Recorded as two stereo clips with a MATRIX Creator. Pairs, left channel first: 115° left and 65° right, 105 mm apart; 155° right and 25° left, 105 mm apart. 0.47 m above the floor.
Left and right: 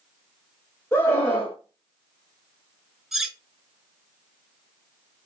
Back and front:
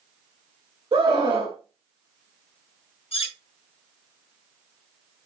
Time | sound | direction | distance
0.9 | a scream | 50° left | 2 m
3.1 | cutlery clinking | 155° right | 1.1 m